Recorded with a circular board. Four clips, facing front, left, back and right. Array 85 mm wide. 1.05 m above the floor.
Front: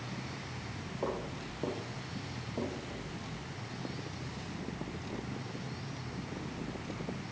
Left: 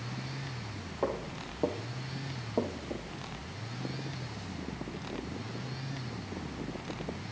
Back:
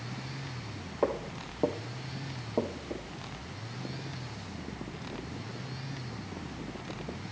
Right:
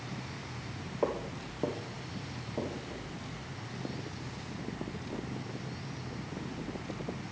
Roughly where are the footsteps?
Behind.